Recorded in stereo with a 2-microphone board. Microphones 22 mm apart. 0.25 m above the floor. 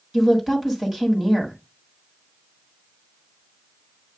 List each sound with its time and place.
0.1 s a woman speaking: 15° right (ahead or behind), 1.8 m